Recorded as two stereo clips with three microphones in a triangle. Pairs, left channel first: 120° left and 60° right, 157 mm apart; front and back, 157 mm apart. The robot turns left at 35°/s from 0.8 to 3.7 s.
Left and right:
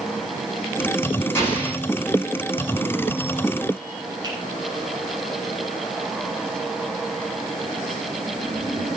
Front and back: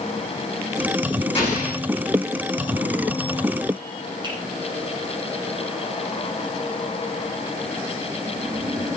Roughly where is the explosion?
Ahead left.